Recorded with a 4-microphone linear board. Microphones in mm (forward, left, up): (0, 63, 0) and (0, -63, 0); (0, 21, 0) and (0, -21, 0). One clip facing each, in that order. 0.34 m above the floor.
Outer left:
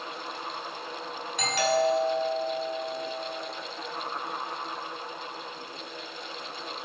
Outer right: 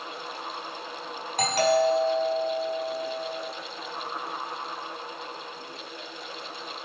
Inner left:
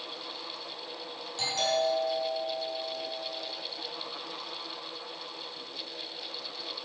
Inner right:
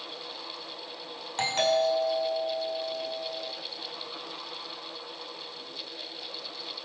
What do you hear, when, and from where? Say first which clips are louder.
1.4 s a doorbell: outer right 3 dB, inner right 4 dB; 45° right (ahead or behind), 5 m